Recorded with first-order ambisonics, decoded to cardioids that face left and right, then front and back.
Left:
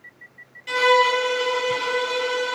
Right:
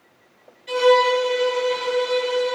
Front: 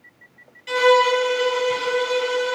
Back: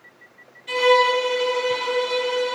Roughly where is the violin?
Ahead left.